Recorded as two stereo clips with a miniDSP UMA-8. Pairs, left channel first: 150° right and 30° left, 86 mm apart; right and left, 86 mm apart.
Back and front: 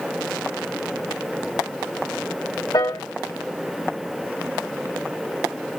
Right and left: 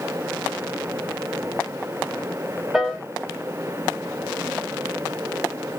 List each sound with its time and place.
2.7 s a piano: 175° left, 0.9 m